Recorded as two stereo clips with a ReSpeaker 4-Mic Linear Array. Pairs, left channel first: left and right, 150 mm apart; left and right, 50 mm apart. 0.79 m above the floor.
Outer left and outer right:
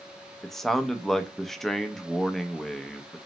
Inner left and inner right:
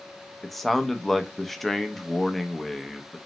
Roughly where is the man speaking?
Centre.